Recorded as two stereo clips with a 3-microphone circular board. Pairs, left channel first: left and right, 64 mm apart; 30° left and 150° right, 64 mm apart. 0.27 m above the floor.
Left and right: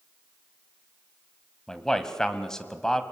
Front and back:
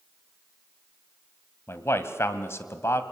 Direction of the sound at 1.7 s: 10° left.